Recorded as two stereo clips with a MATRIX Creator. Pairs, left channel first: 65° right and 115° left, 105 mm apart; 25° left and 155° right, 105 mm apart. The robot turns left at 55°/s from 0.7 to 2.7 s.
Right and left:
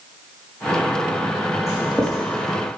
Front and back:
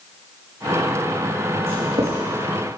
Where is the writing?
135° right, 5.5 m; by 2.2 s 165° right, 5.5 m.